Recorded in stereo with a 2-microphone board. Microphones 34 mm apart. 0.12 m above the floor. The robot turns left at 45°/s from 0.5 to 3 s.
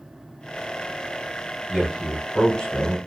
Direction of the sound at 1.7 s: 175° right.